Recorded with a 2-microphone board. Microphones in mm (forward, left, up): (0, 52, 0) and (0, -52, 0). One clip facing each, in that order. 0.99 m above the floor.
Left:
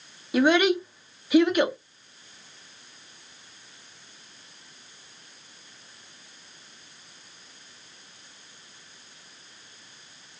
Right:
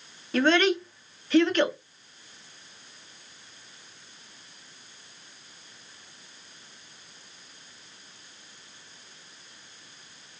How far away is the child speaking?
About 0.9 m.